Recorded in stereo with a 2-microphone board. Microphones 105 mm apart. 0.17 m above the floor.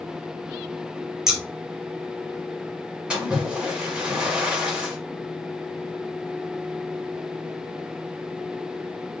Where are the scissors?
5° right (ahead or behind), 1.4 m.